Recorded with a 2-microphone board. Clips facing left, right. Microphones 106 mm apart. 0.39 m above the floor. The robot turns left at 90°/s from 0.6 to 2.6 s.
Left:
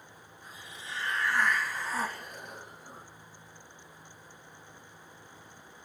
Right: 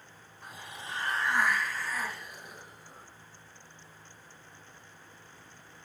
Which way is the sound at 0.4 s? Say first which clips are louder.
Right 3 dB; 90° right.